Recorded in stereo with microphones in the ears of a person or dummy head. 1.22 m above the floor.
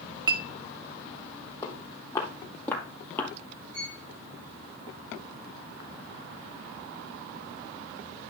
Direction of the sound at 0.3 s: 25° right (ahead or behind).